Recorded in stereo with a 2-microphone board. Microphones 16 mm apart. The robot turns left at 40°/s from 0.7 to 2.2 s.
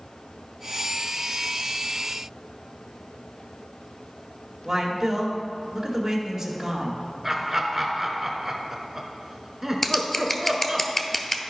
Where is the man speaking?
25° right (ahead or behind), 1.9 m.